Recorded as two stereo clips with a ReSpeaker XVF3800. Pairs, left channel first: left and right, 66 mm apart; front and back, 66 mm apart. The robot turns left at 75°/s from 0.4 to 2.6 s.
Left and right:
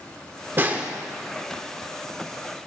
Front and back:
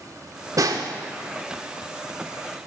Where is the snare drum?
145° right, 0.6 m; by 0.9 s 170° right, 0.6 m.